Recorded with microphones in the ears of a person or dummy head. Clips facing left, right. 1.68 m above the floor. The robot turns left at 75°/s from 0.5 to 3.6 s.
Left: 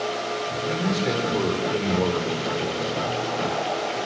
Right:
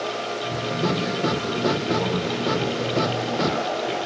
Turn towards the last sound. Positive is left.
turn(degrees=-70)